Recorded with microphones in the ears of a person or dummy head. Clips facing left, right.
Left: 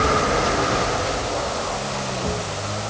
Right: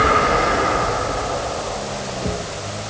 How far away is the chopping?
No chopping in this recording.